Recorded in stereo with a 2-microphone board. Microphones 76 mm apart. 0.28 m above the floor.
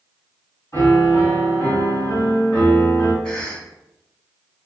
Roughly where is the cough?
Centre.